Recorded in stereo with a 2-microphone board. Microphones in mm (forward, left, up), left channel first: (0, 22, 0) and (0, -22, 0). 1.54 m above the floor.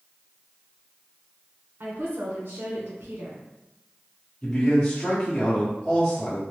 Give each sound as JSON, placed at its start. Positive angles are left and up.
{"t": 1.8, "sound": "a woman speaking", "side_deg": -65, "distance_m": 1.4}
{"t": 4.4, "sound": "a man speaking", "side_deg": 15, "distance_m": 1.3}